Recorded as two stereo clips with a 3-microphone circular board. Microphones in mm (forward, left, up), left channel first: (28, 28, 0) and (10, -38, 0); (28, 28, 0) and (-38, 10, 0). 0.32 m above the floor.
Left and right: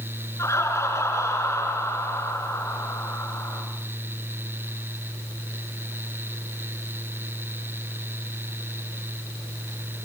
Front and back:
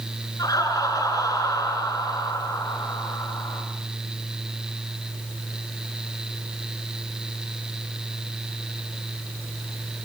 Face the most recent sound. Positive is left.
turn(degrees=35)